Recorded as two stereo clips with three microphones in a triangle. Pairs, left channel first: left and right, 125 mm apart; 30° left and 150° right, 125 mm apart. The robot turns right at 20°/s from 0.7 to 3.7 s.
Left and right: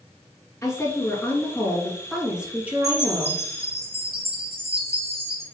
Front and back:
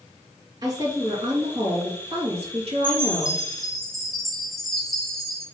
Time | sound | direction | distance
0.6 | a woman speaking | 155° left | 3.5 m
2.8 | a chime | 75° right | 1.7 m